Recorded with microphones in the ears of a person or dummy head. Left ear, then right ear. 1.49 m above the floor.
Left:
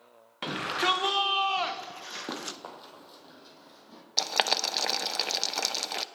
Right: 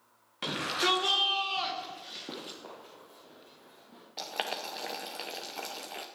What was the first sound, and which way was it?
A shout, 15° left (ahead or behind).